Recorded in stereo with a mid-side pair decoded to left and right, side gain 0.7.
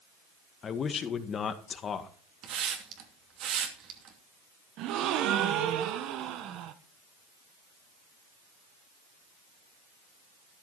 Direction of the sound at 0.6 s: 35° left.